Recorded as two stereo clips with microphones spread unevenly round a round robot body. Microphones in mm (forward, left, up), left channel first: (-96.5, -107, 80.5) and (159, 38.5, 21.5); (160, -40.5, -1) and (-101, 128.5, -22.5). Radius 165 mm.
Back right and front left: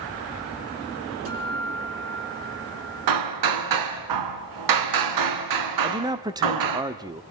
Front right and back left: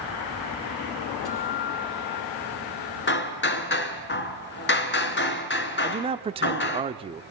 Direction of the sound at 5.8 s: 90° left.